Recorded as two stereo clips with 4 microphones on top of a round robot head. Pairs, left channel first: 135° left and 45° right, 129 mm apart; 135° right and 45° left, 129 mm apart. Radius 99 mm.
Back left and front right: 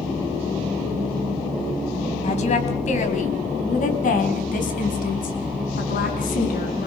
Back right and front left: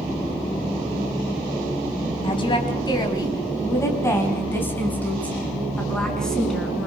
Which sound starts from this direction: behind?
A woman speaking, at 2.2 s.